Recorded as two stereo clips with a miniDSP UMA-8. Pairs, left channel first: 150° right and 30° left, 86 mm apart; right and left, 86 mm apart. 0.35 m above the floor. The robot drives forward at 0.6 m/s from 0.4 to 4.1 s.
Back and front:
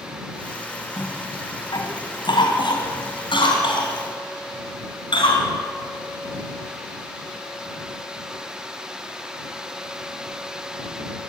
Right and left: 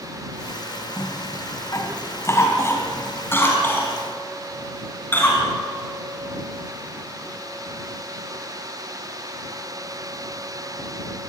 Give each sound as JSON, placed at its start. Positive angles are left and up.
{"t": 1.0, "sound": "a cough", "azimuth_deg": -130, "distance_m": 2.5}